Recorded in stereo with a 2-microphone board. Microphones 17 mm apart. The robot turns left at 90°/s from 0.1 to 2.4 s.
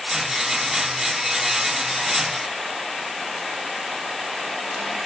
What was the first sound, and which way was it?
Only background noise.